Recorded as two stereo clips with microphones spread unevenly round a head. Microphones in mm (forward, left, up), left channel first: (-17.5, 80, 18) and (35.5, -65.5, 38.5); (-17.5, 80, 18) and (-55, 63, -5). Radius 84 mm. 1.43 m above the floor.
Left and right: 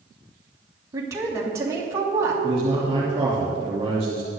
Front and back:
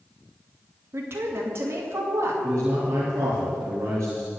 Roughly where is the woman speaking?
Behind right.